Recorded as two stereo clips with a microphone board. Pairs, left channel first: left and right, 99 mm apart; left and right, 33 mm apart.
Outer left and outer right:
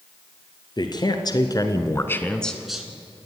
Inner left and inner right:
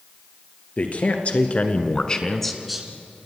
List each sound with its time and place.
0.8 s a man speaking: 45° left (ahead or behind), 2.5 m; by 2.9 s 10° right (ahead or behind), 1.7 m